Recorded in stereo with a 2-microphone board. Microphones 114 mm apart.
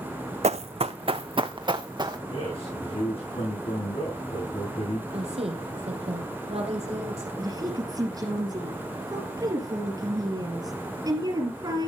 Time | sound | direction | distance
0.4 | running footsteps | 70° right (ahead or behind) | 0.5 m
2.3 | a man speaking | 55° left (ahead or behind) | 7 m
5.1 | a woman speaking | 60° right (ahead or behind) | 3.5 m
7.4 | a woman speaking | 35° right (ahead or behind) | 3 m